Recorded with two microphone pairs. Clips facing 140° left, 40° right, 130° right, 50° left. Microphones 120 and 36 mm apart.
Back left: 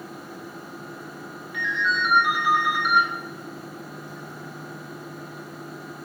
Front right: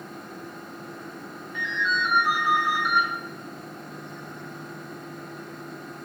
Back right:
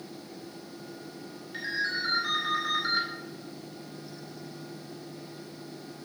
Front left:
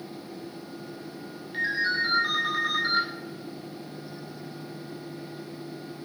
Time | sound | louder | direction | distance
1.5 | a ringtone | back left 2 dB, front left 5 dB | 125° left | 3 m